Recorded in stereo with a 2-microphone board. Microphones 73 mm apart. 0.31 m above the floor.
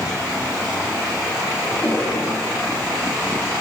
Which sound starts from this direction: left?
A cough, at 1.7 s.